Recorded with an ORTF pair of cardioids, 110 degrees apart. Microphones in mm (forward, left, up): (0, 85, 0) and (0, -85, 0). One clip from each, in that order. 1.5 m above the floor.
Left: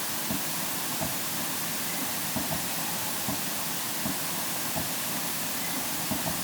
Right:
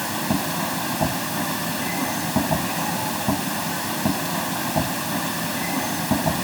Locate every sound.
0.0 s a machine running: 60° right